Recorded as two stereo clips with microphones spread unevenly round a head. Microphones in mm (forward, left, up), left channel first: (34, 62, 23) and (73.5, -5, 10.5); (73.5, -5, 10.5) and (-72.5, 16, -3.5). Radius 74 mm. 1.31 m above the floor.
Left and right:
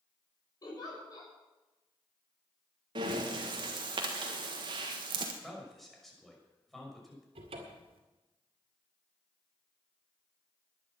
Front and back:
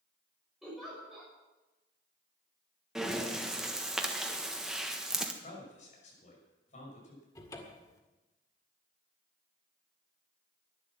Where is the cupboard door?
75° right, 2.0 m.